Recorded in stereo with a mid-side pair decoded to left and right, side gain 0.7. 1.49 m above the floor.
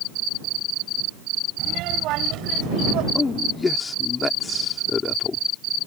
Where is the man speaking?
20° left.